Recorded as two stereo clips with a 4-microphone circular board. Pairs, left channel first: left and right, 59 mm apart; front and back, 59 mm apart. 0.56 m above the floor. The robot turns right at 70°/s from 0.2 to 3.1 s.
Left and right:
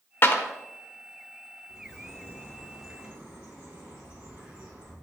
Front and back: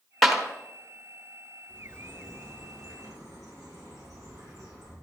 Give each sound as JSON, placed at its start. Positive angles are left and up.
{"t": 0.2, "sound": "a clap", "azimuth_deg": 90, "distance_m": 1.0}
{"t": 1.7, "sound": "a bird", "azimuth_deg": 100, "distance_m": 3.5}